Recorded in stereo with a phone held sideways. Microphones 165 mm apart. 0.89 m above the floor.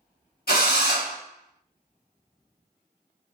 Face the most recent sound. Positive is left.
turn(degrees=70)  # may be behind; listen again after turning